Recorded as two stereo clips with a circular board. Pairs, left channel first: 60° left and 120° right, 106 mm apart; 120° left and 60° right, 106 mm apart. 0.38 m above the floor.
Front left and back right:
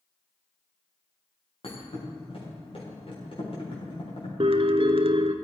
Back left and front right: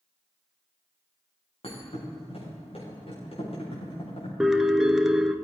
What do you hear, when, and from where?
1.6 s a thud: 90° left, 6 m
4.4 s a piano: 145° right, 0.8 m